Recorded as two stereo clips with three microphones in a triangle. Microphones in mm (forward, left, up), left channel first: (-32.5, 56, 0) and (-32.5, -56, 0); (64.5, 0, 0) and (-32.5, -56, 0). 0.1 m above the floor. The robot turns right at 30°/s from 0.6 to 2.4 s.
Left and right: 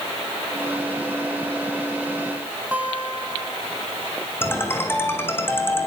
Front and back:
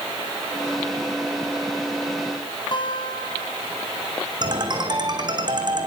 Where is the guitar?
15° right, 3.5 m.